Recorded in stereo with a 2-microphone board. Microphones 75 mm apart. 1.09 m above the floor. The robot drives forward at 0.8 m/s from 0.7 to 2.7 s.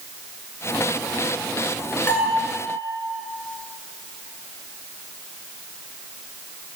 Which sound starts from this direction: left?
A bell, at 2.1 s.